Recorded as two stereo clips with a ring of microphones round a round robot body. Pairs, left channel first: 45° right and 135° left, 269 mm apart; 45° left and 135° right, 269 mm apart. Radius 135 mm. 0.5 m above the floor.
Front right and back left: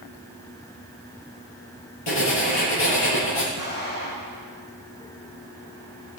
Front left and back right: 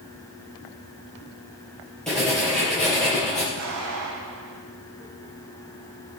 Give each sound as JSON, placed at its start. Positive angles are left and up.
{"t": 2.1, "sound": "writing", "azimuth_deg": -45, "distance_m": 5.5}
{"t": 3.6, "sound": "an explosion", "azimuth_deg": -100, "distance_m": 4.0}